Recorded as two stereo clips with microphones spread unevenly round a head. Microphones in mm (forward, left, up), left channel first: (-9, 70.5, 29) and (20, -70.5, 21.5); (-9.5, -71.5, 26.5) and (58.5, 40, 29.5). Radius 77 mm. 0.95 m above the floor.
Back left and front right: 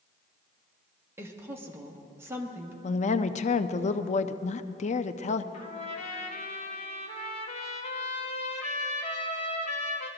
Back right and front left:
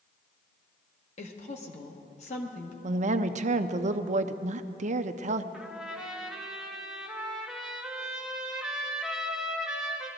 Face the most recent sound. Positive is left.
turn(degrees=145)